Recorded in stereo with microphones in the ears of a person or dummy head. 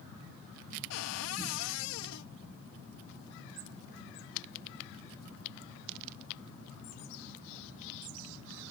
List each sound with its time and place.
0.9 s a cupboard door: 80° left